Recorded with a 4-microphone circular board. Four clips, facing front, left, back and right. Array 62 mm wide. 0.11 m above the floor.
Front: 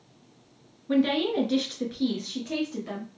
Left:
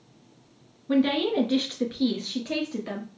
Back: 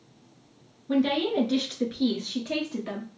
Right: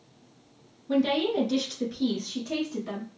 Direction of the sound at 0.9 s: 60° left.